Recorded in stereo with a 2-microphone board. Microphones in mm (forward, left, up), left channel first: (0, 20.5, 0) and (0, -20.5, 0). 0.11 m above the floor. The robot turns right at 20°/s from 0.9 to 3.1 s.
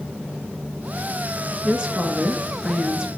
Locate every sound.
1.6 s a woman speaking: 20° right (ahead or behind), 1.3 m